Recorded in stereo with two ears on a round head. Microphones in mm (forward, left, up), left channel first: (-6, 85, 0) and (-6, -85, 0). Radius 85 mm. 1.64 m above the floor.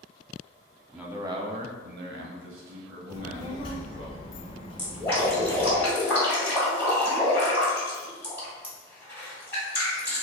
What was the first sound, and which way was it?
A man speaking, 5° right (ahead or behind).